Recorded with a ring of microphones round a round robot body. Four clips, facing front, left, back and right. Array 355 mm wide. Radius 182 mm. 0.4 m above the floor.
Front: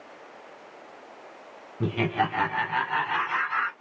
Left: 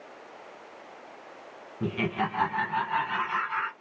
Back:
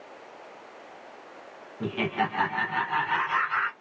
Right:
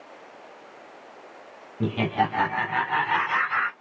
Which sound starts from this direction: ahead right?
Laughter, at 1.8 s.